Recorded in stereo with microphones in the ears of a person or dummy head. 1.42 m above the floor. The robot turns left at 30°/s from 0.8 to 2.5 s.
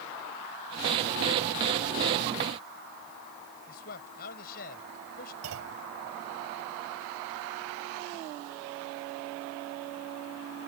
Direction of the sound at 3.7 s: 55° left (ahead or behind).